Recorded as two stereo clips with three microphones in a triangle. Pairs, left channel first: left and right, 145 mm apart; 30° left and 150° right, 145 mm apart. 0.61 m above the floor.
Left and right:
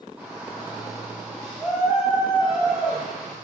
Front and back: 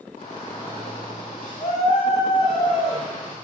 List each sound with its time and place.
0.2 s a shout: 10° right, 2.5 m